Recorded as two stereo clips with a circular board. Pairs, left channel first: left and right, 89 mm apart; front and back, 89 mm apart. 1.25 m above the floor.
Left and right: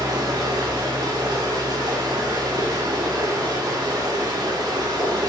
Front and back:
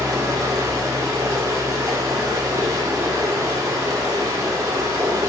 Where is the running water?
130° right, 0.8 m.